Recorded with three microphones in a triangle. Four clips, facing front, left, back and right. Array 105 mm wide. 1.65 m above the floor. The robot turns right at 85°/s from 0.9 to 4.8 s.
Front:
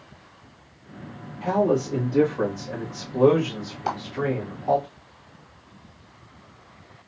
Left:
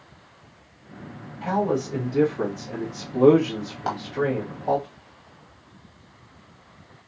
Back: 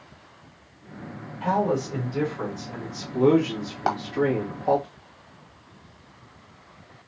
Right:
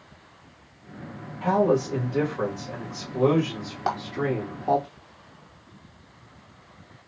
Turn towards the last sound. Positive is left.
turn(degrees=-90)